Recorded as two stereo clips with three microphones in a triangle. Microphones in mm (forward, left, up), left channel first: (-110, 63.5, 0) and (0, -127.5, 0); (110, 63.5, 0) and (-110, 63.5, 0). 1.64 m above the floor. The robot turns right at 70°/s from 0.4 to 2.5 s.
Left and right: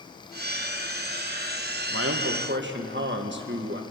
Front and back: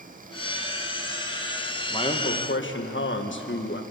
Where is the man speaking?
70° right, 1.6 m; by 3.8 s 25° right, 1.6 m.